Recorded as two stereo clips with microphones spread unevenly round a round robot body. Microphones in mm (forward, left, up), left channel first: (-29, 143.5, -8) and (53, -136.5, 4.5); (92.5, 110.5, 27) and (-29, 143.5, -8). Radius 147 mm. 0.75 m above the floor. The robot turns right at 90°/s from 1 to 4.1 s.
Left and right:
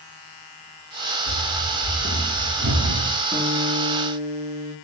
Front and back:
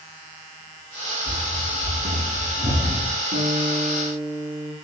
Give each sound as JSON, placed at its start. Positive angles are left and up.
{"t": 1.3, "sound": "running footsteps", "azimuth_deg": 85, "distance_m": 5.5}
{"t": 3.3, "sound": "a guitar", "azimuth_deg": -160, "distance_m": 4.5}